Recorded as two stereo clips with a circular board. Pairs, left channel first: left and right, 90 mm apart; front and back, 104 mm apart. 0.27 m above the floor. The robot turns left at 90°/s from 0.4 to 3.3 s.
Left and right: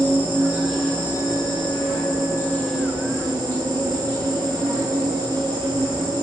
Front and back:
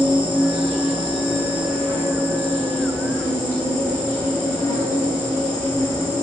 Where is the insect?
155° right, 1.1 m; by 6.2 s 55° right, 1.1 m.